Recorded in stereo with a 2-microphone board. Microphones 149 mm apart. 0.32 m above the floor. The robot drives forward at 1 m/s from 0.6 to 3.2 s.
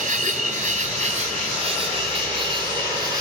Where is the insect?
55° right (ahead or behind), 2 m; by 3.2 s 25° right (ahead or behind), 4 m.